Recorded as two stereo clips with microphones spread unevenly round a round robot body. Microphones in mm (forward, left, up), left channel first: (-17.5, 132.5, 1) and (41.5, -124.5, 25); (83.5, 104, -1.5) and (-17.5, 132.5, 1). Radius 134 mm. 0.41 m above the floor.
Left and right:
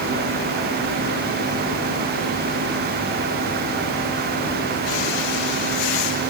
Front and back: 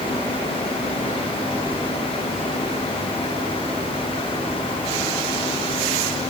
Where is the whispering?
I don't hear whispering.